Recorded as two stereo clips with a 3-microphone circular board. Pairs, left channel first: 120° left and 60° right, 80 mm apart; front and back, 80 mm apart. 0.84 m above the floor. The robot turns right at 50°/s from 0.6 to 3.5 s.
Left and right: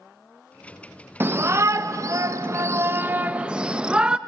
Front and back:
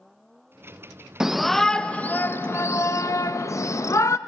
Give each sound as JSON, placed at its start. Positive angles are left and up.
{"t": 1.2, "sound": "a shout", "azimuth_deg": -105, "distance_m": 0.5}